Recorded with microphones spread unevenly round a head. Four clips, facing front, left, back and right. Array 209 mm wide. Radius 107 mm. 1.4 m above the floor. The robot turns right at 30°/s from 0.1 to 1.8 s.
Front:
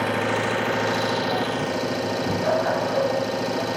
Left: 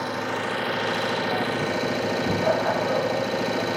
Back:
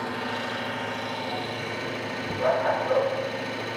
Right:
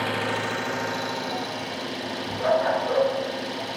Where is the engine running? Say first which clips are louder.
Right 1 dB, front 7 dB; 5° right, 0.7 m; by 3.8 s 50° left, 0.7 m.